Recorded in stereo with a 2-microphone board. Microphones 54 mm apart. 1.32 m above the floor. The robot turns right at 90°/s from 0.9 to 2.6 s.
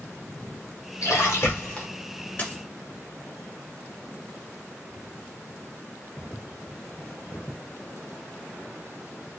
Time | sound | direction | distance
1.0 | a splash | 90° left | 1.2 m
2.4 | a dropped coin | 35° left (ahead or behind) | 1.5 m